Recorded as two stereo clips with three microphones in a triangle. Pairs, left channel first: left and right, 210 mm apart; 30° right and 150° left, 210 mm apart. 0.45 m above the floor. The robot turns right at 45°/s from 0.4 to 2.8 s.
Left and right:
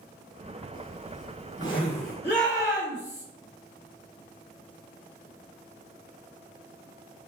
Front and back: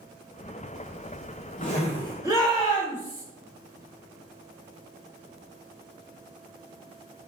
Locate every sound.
0.7 s a zipper: 20° right, 1.8 m; by 2.1 s 40° left, 1.8 m
2.2 s a shout: 80° left, 2 m; by 3.2 s 105° left, 2 m